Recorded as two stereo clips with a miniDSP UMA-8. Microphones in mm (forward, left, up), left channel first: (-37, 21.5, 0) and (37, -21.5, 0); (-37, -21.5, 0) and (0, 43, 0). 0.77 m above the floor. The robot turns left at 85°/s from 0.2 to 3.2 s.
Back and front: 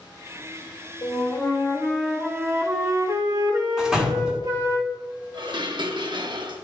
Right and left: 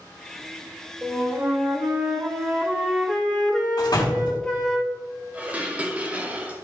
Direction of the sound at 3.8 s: 110° right.